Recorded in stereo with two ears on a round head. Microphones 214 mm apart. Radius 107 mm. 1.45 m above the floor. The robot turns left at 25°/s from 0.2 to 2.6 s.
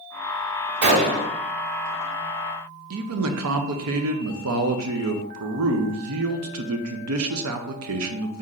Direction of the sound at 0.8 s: 75° right (ahead or behind).